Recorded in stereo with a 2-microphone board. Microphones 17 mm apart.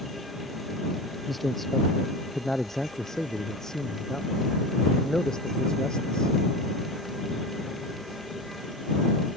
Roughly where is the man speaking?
Centre.